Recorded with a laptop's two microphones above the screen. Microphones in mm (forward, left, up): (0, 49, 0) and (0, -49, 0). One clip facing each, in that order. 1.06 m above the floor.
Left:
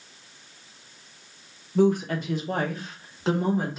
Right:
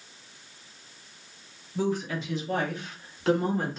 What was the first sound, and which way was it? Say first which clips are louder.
A woman speaking: left 7 dB; 60° left (ahead or behind).